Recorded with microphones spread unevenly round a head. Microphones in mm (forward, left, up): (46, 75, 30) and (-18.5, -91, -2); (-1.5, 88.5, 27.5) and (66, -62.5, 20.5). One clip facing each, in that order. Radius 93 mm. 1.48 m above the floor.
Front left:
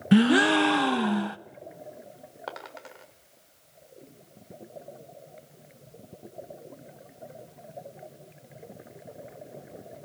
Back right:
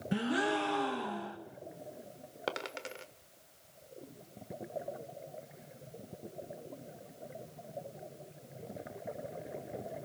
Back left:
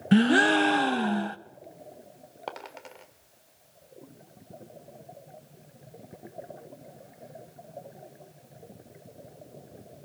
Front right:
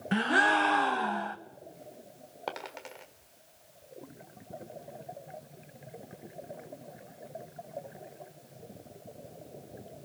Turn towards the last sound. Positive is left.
turn(degrees=-155)